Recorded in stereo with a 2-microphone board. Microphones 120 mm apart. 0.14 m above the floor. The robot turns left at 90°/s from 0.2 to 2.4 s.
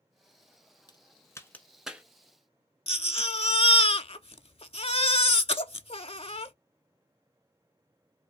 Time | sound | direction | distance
0.9 | a crack | 40° left (ahead or behind) | 1.0 m
2.9 | a baby crying | 55° left (ahead or behind) | 0.5 m